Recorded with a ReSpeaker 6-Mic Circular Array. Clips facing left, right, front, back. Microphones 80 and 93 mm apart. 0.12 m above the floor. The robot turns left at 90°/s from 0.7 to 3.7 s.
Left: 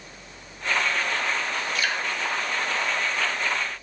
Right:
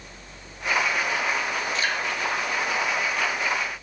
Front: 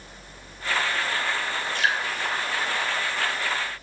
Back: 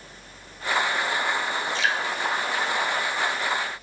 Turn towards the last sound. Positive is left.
turn(degrees=155)